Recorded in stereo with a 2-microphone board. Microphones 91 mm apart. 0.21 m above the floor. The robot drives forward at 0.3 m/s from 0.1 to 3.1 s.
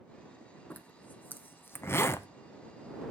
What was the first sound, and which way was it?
A zipper, 20° left (ahead or behind).